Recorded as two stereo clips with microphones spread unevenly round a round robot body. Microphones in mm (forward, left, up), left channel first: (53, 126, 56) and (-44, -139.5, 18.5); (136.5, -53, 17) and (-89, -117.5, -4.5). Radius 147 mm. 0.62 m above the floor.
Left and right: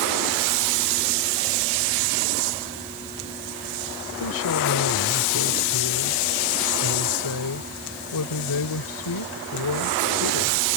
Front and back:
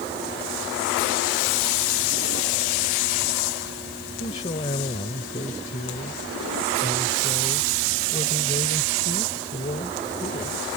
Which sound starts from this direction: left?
A woman speaking, at 4.2 s.